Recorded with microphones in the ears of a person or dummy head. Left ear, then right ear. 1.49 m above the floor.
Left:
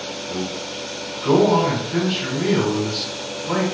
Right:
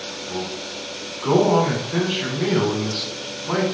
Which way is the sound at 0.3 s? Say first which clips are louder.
Even; centre (ahead or behind).